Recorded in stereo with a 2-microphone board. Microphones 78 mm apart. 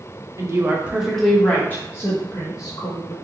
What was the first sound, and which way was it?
A woman speaking, 40° right (ahead or behind).